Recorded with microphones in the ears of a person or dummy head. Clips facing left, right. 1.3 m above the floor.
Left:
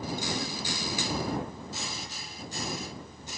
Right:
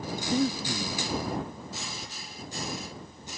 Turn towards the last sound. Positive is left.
turn(degrees=-70)  # may be behind; listen again after turning